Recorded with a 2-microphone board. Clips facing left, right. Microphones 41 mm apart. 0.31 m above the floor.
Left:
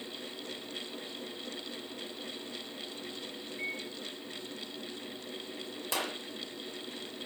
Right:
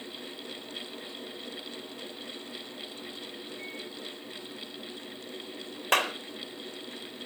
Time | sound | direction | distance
3.6 | a microwave | 40° left (ahead or behind) | 2 m
5.9 | a clap | 60° right (ahead or behind) | 1.7 m